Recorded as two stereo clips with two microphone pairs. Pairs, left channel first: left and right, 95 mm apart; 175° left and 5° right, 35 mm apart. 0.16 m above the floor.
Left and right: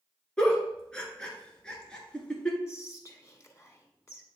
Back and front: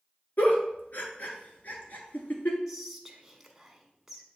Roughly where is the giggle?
Behind.